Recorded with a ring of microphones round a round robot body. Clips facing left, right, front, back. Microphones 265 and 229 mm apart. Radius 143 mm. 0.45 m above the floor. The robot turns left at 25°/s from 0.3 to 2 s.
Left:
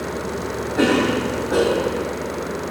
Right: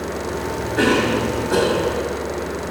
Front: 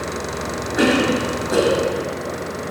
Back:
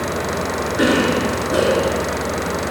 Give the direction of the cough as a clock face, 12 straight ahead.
1 o'clock.